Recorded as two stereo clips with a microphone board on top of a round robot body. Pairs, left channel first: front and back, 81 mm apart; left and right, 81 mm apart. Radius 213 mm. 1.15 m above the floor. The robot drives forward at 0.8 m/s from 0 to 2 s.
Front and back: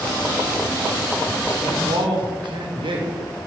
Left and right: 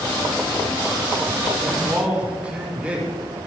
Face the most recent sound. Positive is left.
turn(degrees=-165)